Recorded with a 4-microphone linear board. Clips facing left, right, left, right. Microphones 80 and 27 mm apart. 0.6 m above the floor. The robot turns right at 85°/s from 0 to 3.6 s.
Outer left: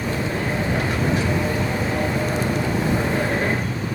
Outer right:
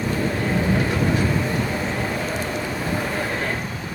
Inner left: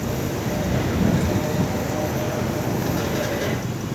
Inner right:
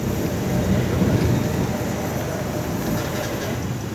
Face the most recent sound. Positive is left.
turn(degrees=155)